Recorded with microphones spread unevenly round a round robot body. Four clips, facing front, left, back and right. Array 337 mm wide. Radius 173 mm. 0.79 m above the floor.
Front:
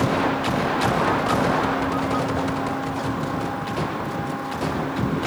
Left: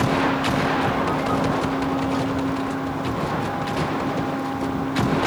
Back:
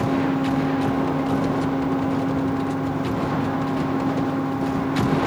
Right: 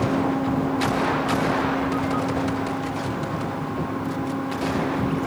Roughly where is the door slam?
No door slam in this recording.